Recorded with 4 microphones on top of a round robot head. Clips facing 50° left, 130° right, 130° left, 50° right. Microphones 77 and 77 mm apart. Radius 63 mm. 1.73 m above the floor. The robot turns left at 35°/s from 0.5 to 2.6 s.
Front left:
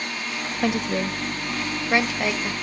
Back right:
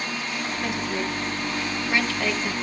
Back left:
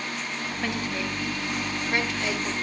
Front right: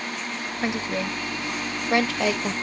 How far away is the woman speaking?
About 1.1 m.